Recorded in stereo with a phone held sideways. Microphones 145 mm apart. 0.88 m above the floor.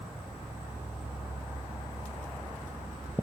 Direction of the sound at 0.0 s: 10° right (ahead or behind).